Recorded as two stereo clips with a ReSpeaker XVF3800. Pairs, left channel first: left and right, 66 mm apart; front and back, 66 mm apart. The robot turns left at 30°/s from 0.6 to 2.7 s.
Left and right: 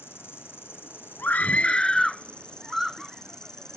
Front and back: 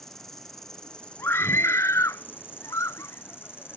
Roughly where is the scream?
Ahead left.